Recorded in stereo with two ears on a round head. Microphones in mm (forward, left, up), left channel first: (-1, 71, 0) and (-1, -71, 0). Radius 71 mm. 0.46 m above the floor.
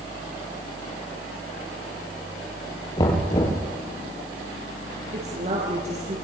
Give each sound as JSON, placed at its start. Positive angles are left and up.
{"t": 3.0, "sound": "knocking", "side_deg": 25, "distance_m": 7.0}
{"t": 5.1, "sound": "a woman speaking", "side_deg": -45, "distance_m": 9.0}